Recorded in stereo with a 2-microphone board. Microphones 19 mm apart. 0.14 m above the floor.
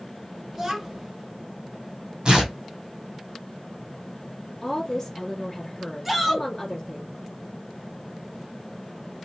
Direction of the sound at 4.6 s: 15° left (ahead or behind).